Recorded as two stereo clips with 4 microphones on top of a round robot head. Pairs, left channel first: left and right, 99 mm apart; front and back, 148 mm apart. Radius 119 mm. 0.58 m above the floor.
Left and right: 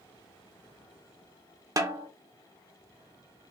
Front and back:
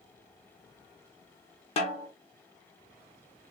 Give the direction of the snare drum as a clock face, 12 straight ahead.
1 o'clock.